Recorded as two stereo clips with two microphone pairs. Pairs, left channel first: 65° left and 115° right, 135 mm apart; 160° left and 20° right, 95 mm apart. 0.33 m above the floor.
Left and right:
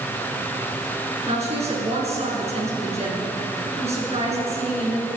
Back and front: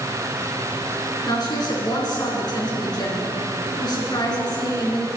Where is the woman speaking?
155° right, 4.5 m.